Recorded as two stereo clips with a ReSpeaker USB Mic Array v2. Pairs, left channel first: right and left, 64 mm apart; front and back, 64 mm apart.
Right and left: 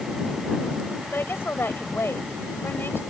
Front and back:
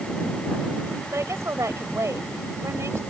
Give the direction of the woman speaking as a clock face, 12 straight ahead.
5 o'clock.